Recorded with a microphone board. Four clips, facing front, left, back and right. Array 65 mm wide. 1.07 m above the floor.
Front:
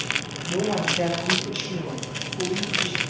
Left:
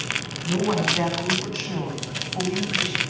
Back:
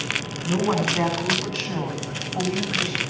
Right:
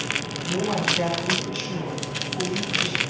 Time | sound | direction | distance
0.5 | a woman speaking | 150° left | 8 m